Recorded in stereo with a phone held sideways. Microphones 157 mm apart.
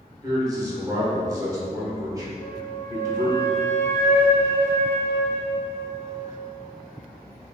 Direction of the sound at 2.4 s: 35° right (ahead or behind).